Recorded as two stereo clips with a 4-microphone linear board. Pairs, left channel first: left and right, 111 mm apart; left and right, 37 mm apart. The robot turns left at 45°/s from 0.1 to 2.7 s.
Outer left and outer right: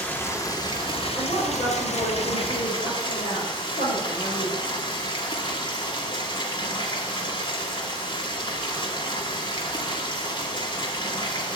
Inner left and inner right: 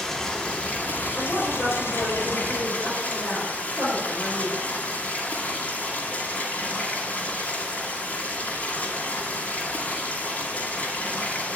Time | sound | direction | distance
0.0 | running water | 165° left | 2 m
1.1 | a woman speaking | 130° left | 5.5 m